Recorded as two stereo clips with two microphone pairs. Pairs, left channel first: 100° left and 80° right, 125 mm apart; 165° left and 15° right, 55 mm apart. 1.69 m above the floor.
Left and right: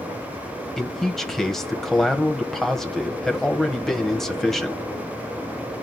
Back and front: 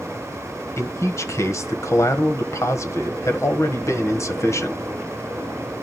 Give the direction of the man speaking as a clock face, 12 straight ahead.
6 o'clock.